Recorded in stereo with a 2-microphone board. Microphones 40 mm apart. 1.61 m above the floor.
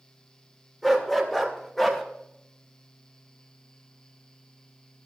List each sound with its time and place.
0.8 s a dog barking: 5° left (ahead or behind), 2.5 m